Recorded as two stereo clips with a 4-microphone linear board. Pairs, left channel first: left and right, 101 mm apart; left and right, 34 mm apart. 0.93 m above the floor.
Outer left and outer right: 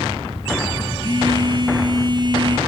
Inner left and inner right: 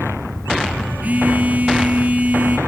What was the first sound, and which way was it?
A phone buzzing, 45° right (ahead or behind).